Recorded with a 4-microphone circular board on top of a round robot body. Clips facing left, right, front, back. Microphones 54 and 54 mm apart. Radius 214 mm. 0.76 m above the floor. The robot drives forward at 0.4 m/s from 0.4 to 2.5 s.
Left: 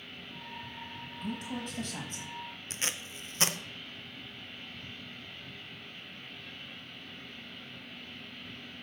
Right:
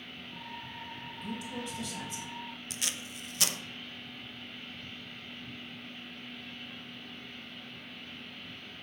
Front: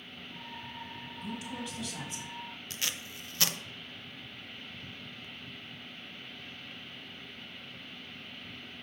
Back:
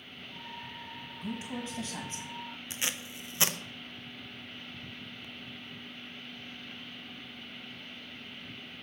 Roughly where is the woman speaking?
Behind left.